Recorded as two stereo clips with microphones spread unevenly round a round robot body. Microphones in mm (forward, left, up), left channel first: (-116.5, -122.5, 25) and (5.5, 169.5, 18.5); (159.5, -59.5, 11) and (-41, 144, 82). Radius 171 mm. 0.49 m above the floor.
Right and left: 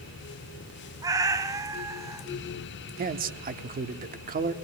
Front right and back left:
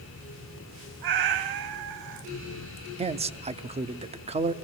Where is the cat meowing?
145° left, 1.1 m.